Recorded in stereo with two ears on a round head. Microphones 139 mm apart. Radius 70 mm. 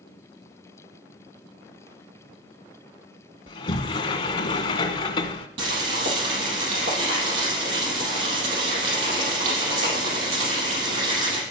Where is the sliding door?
35° left (ahead or behind), 1.0 m.